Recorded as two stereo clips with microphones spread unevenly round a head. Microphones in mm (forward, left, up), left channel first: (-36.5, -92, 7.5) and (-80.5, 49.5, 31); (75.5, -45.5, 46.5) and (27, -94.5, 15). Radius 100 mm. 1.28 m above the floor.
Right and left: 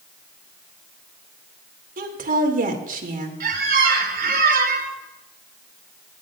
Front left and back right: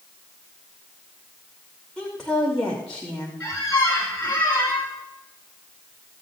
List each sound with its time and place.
2.0 s a woman speaking: 135° left, 2.5 m
3.4 s a squeak: 125° left, 3 m